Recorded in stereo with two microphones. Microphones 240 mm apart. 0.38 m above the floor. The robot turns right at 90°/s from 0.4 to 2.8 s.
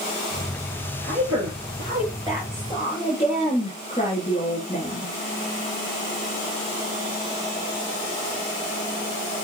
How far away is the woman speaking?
About 8.5 m.